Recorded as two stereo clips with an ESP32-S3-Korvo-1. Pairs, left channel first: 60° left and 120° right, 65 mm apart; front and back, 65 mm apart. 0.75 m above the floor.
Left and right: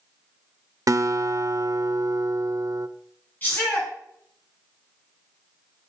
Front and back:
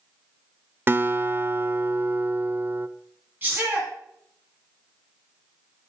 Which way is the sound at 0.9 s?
130° right.